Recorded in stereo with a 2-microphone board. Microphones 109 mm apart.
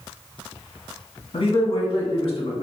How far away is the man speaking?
About 1.5 m.